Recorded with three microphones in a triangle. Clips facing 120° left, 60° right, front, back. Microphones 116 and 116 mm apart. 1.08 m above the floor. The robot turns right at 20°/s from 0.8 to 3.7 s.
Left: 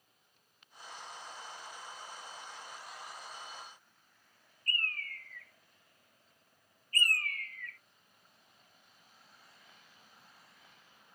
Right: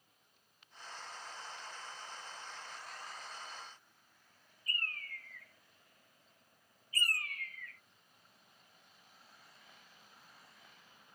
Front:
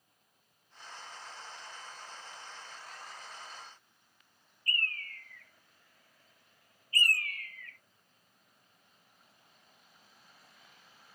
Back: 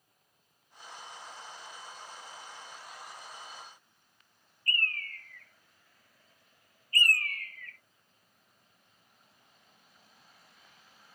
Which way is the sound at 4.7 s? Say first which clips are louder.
Left 4 dB, back 3 dB; 140° right.